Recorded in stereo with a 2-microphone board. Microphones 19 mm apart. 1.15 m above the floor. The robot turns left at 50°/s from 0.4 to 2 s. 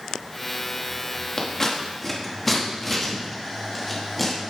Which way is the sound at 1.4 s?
45° left (ahead or behind).